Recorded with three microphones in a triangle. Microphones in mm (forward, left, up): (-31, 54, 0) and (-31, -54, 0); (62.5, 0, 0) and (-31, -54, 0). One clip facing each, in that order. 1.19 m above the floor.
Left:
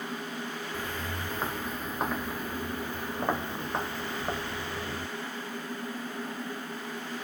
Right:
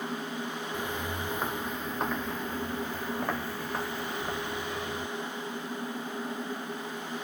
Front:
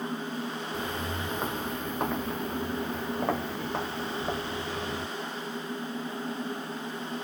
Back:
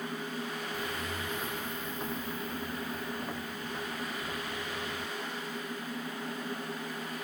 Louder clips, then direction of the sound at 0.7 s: Right 3 dB, front 4 dB; 15° right.